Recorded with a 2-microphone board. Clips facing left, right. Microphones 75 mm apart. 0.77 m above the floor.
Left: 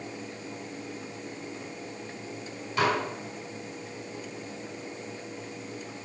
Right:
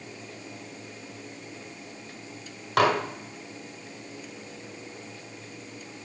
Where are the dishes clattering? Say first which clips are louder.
Right 4 dB; 70° right (ahead or behind), 2.0 m.